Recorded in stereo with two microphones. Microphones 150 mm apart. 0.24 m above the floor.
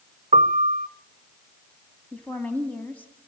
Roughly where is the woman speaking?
Centre.